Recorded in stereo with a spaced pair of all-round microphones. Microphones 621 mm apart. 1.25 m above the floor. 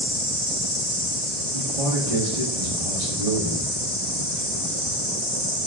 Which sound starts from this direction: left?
An insect, at 0.0 s.